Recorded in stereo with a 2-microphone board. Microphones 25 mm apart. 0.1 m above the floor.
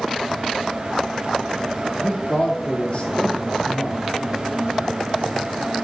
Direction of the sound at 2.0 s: 45° left (ahead or behind).